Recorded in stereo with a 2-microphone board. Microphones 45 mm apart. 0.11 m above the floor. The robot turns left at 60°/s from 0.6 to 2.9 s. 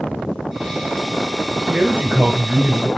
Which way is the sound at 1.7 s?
40° right.